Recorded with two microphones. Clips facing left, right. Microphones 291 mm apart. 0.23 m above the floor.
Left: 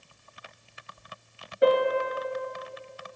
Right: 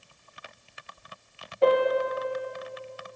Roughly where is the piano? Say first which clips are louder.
Even; centre.